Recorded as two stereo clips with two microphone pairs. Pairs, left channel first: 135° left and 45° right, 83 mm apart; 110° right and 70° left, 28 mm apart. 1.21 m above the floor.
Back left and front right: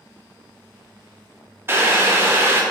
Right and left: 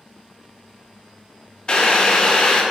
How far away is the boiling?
About 0.6 m.